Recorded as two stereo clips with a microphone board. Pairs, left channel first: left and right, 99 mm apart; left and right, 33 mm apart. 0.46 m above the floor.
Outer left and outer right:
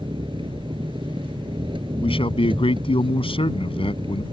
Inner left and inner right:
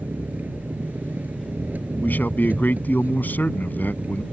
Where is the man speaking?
75° left (ahead or behind).